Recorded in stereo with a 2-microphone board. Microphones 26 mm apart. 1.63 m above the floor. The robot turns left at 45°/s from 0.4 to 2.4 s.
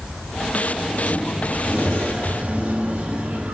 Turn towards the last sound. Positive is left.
turn(degrees=-100)